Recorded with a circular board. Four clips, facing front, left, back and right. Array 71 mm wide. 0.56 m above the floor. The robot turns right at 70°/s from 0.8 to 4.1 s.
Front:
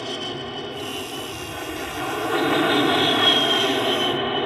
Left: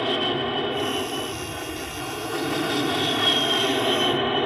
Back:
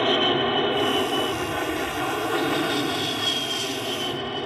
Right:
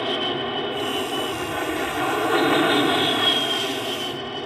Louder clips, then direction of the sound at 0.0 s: Left 1 dB, back 9 dB; straight behind.